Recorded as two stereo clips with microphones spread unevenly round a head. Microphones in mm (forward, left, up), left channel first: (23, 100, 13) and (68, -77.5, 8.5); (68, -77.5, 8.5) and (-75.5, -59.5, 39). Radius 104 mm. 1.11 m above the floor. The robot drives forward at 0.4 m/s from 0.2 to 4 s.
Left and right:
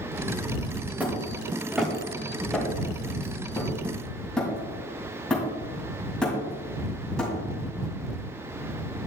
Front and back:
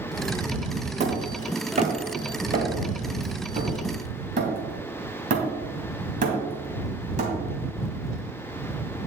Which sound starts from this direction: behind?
Hammering, at 1.0 s.